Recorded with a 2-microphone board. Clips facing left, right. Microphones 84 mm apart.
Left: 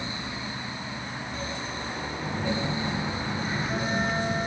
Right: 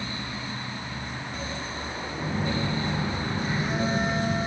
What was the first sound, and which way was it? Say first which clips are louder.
A phone buzzing: right 1 dB; 15° right (ahead or behind).